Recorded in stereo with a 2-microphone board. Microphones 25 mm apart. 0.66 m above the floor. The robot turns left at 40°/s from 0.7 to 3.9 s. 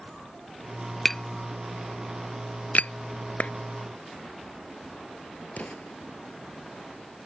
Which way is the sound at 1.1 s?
10° left (ahead or behind).